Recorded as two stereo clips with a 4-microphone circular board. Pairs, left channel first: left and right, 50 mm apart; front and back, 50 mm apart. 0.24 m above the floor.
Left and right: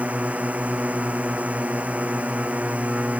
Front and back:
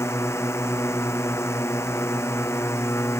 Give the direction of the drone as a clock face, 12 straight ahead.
1 o'clock.